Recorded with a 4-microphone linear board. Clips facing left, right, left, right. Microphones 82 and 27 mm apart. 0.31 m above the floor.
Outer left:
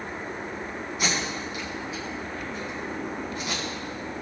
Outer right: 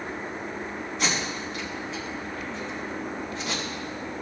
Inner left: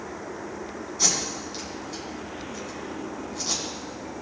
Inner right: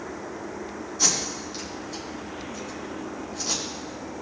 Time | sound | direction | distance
1.0 | tape being pulled | 10° left (ahead or behind) | 3.5 m